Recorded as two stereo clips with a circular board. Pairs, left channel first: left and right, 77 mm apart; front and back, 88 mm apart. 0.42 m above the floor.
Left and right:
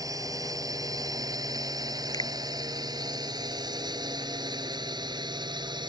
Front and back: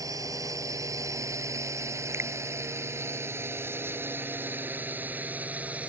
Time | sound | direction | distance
0.0 | a drone | 130° right | ?
2.1 | a finger snap | 120° left | ?